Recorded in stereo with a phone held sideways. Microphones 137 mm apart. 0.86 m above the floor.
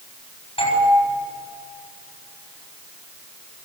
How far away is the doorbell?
About 7.5 m.